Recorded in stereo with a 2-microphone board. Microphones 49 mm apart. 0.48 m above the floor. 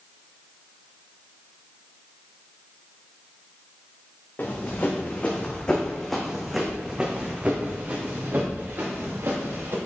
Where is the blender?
No blender in this recording.